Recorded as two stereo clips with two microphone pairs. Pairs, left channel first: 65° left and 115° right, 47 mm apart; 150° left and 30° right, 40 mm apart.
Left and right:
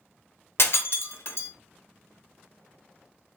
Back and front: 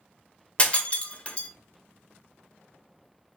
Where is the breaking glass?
90° left, 0.6 m.